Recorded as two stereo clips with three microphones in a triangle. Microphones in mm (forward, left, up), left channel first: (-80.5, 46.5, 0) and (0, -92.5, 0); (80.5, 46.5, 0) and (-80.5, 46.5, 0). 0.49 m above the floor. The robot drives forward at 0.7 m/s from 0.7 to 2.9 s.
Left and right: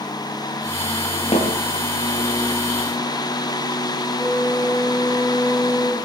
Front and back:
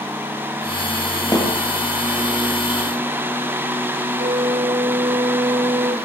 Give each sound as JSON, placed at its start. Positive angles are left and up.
{"t": 1.3, "sound": "a snare drum", "azimuth_deg": 70, "distance_m": 7.5}
{"t": 4.1, "sound": "a flute", "azimuth_deg": -160, "distance_m": 5.0}